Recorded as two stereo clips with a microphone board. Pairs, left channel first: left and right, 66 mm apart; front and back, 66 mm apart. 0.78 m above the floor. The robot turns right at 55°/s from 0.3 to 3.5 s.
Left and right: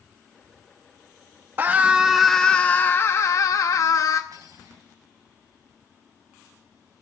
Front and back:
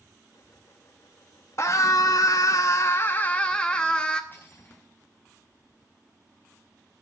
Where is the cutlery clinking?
60° right, 4 m.